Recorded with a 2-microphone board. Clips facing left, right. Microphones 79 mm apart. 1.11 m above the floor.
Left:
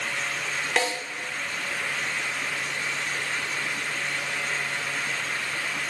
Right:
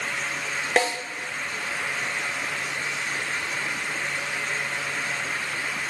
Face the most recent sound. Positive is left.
turn(degrees=-40)  # may be behind; listen again after turning